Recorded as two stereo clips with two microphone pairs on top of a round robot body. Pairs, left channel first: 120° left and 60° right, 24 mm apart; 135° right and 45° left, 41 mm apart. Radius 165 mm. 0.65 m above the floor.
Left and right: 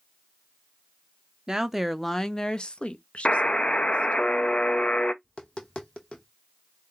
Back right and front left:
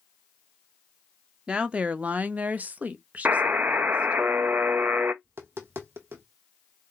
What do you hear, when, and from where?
1.5 s a woman speaking: 20° right, 0.7 m; by 4.2 s 100° left, 1.4 m
3.2 s a buzzer: 75° left, 0.7 m
5.2 s tapping: 70° left, 0.8 m